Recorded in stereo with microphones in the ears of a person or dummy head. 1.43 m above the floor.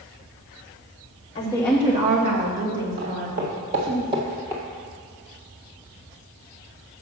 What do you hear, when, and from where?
1.4 s a woman speaking: 30° left (ahead or behind), 1.0 m; by 4.0 s 75° right (ahead or behind), 3 m
3.0 s footsteps: 50° right (ahead or behind), 2.5 m; by 4.6 s 10° right (ahead or behind), 1.4 m